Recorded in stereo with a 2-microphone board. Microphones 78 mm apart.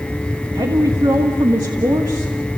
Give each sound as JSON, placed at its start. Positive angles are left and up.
{"t": 0.6, "sound": "a woman speaking", "side_deg": -70, "distance_m": 1.9}